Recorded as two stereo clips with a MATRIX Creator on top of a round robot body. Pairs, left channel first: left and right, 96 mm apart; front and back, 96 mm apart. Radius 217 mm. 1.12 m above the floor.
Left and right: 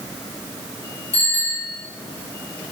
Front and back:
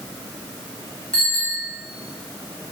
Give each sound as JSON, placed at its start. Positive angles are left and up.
{"t": 1.1, "sound": "a bicycle bell", "azimuth_deg": 80, "distance_m": 7.0}